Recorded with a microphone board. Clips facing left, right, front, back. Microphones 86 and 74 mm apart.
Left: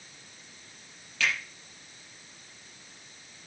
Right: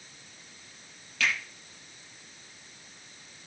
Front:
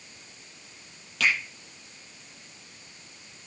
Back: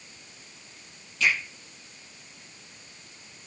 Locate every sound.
1.2 s a finger snap: straight ahead, 8 m